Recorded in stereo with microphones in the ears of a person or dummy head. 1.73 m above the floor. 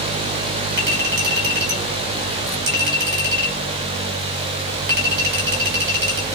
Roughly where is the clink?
Right.